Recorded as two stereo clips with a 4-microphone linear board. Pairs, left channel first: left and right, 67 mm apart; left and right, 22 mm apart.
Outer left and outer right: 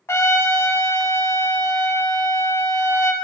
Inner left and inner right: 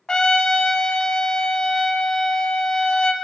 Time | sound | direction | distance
0.1 | a trumpet | 45° left (ahead or behind) | 0.6 m